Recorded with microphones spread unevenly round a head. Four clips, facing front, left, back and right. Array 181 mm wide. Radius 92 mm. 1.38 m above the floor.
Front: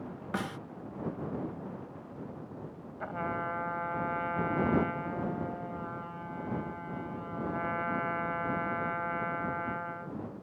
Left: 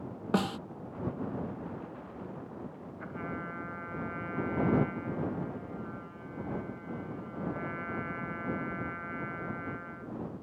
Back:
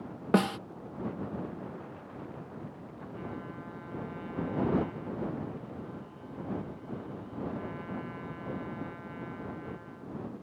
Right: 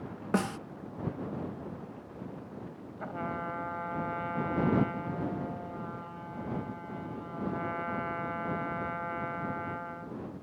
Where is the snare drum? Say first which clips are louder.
Even, back 10 dB; straight behind.